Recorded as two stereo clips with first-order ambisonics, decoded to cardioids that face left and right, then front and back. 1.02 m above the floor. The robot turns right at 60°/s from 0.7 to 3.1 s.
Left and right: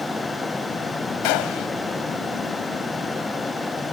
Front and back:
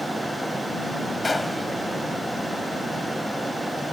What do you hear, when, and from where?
1.2 s a gunshot: 75° left; by 1.7 s 100° left